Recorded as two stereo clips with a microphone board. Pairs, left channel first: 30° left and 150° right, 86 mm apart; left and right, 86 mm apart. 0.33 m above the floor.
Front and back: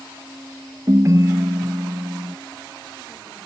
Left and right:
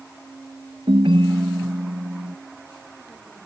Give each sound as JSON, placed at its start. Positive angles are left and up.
{"t": 0.9, "sound": "a ringtone", "azimuth_deg": -100}